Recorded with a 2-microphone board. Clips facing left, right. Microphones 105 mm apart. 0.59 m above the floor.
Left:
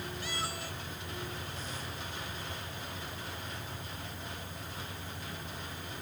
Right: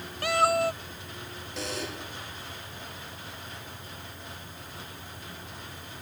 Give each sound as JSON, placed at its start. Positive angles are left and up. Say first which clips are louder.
{"t": 0.2, "sound": "a cat meowing", "louder": "right 21 dB", "side_deg": -75}
{"t": 1.6, "sound": "a buzzer", "louder": "right 7 dB", "side_deg": -85}